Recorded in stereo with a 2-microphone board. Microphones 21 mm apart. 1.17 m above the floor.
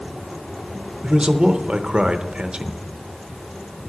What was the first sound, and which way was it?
A man speaking, 50° right (ahead or behind).